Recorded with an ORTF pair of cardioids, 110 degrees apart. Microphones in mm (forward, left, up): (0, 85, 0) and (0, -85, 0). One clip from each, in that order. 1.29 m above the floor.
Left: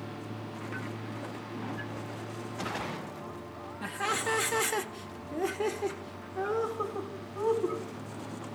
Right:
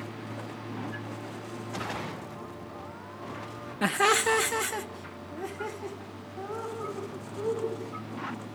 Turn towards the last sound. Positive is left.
turn(degrees=65)